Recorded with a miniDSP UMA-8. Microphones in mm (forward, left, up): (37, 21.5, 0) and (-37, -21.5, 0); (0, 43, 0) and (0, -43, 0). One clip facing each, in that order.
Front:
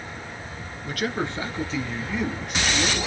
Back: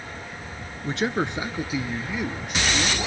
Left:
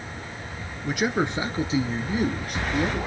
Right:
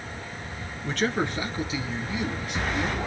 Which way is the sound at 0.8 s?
170° left.